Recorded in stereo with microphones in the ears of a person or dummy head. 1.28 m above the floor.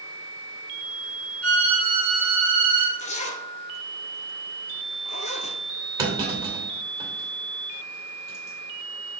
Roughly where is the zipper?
Left.